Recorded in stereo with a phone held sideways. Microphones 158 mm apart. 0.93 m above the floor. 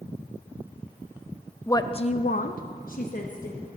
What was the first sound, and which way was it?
A woman speaking, 15° left (ahead or behind).